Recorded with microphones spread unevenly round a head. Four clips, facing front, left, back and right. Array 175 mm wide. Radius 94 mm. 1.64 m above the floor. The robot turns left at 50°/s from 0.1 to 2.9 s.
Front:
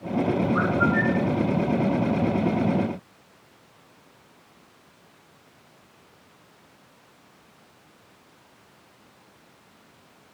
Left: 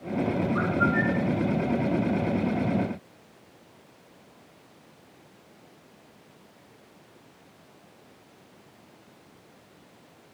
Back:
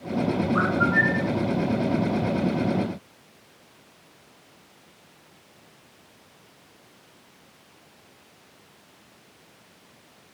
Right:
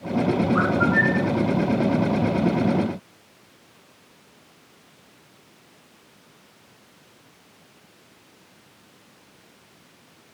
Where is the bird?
115° right; by 1.3 s 155° right.